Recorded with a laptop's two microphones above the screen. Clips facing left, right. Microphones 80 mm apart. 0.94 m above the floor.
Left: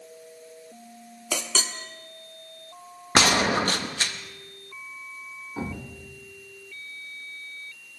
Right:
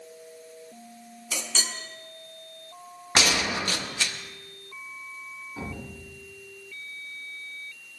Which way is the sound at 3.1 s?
45° left (ahead or behind).